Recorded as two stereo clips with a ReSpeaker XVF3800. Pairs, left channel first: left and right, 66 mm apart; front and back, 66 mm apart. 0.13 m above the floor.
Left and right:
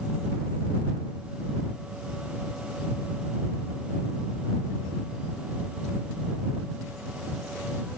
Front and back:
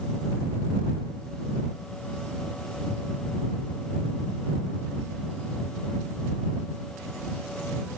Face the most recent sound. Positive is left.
No sound to turn to.